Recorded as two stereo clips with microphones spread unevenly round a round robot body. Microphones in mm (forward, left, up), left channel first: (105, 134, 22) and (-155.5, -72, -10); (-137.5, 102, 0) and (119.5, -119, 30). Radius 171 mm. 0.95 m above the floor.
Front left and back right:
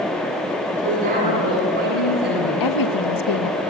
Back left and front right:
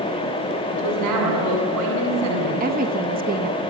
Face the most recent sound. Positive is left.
turn(degrees=25)